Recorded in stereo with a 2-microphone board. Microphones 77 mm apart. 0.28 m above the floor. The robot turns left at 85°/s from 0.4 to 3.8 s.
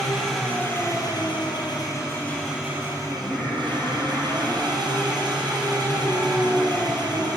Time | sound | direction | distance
0.0 | an engine running | 175° left | 3.5 m
3.1 | singing | 165° right | 3 m